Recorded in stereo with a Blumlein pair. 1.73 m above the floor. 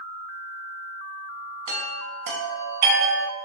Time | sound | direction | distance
1.7 | a chime | 50° right | 0.9 m